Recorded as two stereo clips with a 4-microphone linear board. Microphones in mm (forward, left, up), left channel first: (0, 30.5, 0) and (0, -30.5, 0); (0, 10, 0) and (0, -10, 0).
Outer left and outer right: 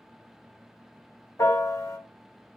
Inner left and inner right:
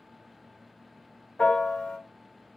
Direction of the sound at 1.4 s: 60° left (ahead or behind).